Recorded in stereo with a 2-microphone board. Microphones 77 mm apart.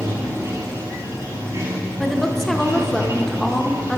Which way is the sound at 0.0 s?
35° right (ahead or behind).